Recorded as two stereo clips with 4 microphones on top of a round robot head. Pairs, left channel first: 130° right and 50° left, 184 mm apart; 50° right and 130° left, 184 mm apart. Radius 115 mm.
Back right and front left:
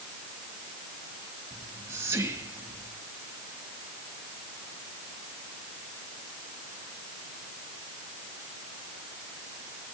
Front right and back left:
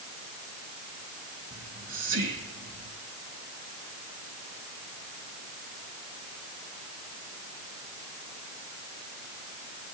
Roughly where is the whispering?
Behind left.